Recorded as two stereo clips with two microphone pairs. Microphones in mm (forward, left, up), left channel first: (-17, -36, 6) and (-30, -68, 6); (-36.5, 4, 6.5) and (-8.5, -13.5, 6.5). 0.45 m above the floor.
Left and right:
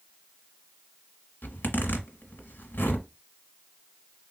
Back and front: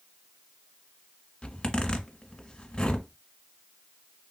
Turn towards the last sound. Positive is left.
turn(degrees=85)